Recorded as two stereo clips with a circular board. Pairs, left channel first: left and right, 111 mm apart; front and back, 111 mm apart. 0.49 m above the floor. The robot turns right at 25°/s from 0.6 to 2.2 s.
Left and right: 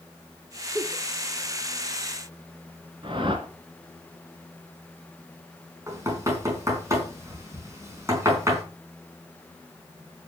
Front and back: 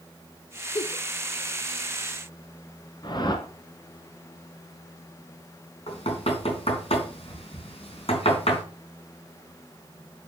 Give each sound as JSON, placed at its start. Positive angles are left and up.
{"t": 0.8, "sound": "a giggle", "azimuth_deg": -35, "distance_m": 1.1}
{"t": 3.0, "sound": "a whoosh", "azimuth_deg": -50, "distance_m": 1.9}
{"t": 5.9, "sound": "knocking", "azimuth_deg": -30, "distance_m": 4.0}